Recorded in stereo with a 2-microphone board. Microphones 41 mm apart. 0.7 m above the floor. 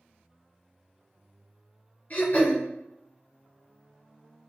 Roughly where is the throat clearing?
Left.